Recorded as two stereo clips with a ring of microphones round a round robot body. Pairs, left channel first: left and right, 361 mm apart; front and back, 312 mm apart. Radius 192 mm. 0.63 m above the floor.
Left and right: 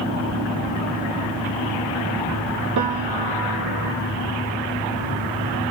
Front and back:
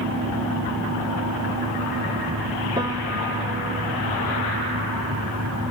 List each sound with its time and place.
2.8 s a piano: 105° right, 1.8 m